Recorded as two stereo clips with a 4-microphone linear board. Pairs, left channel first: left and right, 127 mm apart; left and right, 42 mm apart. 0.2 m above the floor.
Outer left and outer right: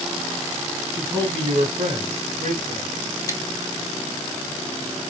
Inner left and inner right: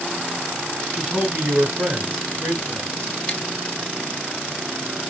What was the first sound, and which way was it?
A man speaking, 25° right (ahead or behind).